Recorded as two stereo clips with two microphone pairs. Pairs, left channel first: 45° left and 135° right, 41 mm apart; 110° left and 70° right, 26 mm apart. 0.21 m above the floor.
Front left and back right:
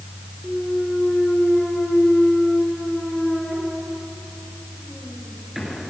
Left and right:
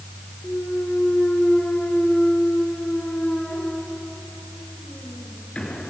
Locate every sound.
0.4 s a clunk: 135° left, 3.5 m